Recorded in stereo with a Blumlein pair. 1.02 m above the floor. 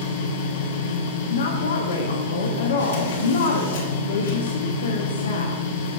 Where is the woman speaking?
65° left, 1.1 m.